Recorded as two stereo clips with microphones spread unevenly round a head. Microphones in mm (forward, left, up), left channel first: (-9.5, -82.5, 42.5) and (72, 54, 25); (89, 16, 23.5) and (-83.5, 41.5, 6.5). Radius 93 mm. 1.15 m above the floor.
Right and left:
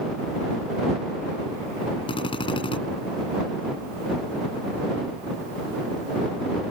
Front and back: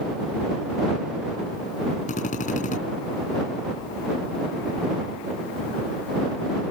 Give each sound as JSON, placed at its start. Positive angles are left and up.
{"t": 2.1, "sound": "a drill", "azimuth_deg": -60}